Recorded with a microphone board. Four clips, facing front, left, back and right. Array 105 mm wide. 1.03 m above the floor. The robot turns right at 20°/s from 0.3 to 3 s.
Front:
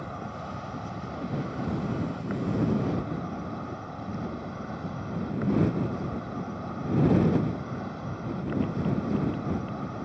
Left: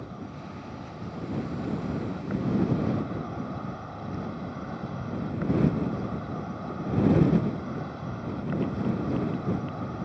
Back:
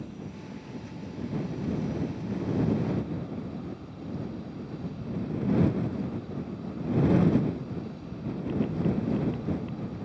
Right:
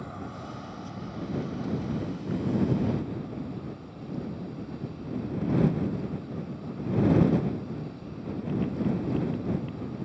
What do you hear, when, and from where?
0.0 s an insect: 10° right; by 10.1 s 40° left